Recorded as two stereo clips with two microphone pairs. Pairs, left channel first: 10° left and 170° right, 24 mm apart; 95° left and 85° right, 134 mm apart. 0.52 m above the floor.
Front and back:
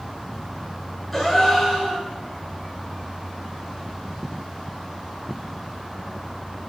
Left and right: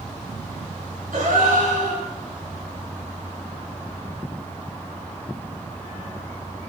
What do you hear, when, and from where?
1.1 s a gasp: 75° right, 7.5 m